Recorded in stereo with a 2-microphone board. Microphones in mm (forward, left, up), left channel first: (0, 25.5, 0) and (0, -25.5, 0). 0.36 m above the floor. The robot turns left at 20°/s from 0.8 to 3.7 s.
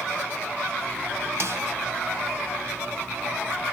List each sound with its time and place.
1.4 s a snare drum: 55° right (ahead or behind), 2.5 m; by 1.6 s 60° right (ahead or behind), 2.5 m